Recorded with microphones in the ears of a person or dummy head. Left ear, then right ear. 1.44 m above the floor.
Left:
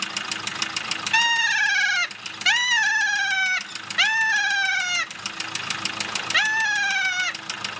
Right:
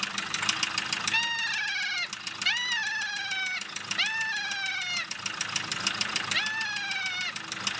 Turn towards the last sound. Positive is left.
turn(degrees=45)  # may be behind; listen again after turning